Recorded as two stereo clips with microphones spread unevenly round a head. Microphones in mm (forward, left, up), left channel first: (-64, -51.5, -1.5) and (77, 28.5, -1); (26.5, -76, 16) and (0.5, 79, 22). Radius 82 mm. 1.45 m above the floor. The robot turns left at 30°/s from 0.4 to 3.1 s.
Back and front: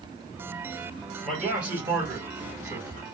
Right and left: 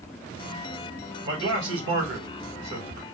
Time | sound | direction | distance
1.2 | a man speaking | 125° left | 1.9 m